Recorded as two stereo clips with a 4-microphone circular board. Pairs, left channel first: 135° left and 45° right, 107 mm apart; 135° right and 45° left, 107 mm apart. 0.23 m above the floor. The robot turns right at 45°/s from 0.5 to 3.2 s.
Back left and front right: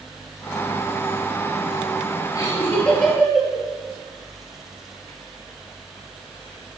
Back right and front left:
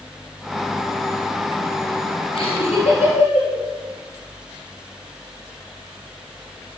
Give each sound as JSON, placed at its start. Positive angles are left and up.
{"t": 2.4, "sound": "laughter", "azimuth_deg": -170, "distance_m": 4.5}